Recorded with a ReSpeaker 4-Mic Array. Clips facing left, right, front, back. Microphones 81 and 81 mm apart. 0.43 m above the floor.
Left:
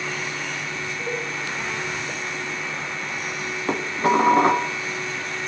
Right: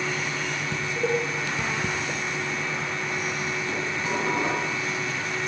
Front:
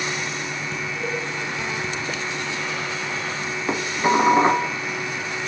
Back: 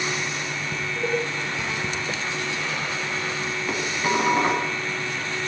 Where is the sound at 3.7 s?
60° left, 2.5 m.